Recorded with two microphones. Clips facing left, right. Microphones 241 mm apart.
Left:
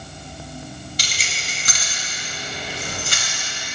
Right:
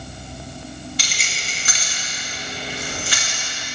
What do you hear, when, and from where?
1.0 s keys jangling: 40° left (ahead or behind), 1.3 m; by 3.4 s 50° left (ahead or behind), 2.5 m